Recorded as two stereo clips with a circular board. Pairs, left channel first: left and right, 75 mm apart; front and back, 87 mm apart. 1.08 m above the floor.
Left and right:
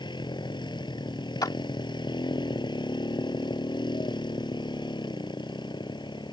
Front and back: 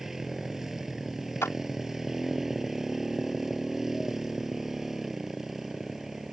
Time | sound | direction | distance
0.0 | a motorcycle | 95° left | ?
1.4 | a clap | 60° left | ?